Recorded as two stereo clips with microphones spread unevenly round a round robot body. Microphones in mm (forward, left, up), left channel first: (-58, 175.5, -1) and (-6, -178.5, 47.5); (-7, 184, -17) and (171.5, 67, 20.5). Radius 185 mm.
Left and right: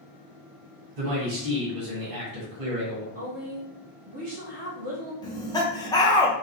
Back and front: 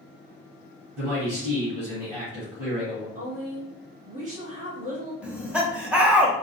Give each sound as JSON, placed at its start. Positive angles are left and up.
{"t": 0.9, "sound": "a man speaking", "azimuth_deg": -100, "distance_m": 1.9}
{"t": 3.1, "sound": "a woman speaking", "azimuth_deg": -30, "distance_m": 1.8}
{"t": 5.2, "sound": "laughter", "azimuth_deg": 70, "distance_m": 0.9}